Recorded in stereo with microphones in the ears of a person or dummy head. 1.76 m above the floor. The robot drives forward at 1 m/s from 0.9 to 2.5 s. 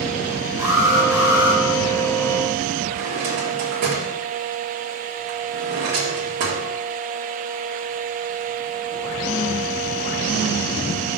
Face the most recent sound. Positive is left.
turn(degrees=-55)  # may be behind; listen again after turning